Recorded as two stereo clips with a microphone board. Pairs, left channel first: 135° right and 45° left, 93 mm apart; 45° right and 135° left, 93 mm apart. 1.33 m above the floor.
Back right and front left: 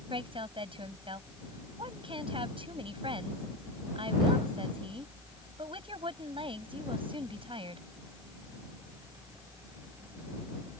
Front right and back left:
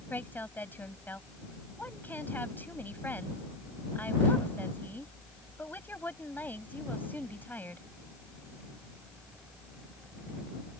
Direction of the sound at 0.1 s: 25° left.